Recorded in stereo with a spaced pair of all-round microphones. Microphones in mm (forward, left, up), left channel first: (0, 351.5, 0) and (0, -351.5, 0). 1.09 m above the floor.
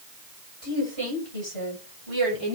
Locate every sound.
0.6 s a woman speaking: 40° right (ahead or behind), 6.5 m; by 2.6 s 50° right (ahead or behind), 8 m